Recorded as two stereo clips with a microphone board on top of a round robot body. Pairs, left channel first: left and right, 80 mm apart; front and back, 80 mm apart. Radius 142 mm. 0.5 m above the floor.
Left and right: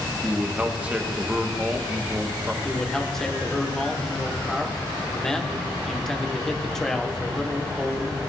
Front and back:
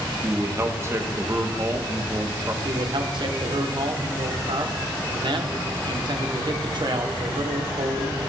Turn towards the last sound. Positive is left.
turn(degrees=175)